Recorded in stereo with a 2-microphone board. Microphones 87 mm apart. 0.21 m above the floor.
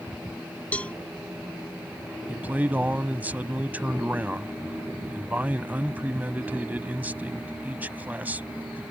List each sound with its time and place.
0.7 s a cowbell: 15° left (ahead or behind)
2.3 s a man speaking: 20° right (ahead or behind)